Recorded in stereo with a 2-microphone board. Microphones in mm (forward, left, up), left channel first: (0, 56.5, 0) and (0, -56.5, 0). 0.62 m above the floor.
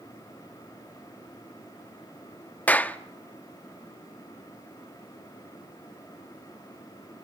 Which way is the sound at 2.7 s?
15° left (ahead or behind).